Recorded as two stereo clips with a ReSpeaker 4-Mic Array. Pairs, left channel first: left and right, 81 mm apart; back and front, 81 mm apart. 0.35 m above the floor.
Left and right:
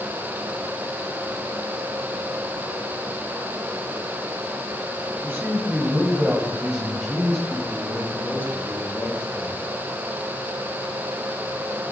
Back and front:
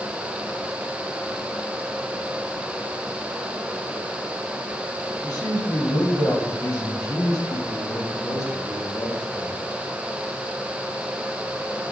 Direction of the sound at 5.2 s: 150° right.